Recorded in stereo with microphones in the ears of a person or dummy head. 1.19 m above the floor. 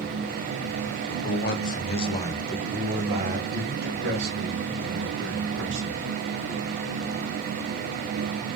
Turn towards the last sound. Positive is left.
turn(degrees=-70)  # may be behind; listen again after turning